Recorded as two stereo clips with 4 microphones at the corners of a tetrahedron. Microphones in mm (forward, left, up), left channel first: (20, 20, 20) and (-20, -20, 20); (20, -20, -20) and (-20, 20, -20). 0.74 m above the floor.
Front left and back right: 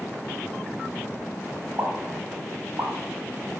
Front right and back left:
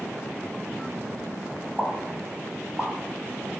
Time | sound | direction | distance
1.8 | a pop | 130° right | 1.8 m